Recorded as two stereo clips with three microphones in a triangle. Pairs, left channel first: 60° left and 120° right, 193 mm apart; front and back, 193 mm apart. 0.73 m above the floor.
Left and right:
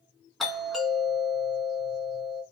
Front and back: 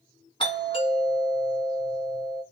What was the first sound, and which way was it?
A doorbell, 30° right.